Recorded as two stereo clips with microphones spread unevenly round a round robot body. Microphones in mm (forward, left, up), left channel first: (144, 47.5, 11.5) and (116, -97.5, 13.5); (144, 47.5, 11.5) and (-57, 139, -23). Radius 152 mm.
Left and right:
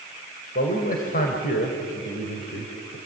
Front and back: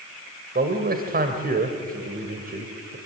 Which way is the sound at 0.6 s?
115° left.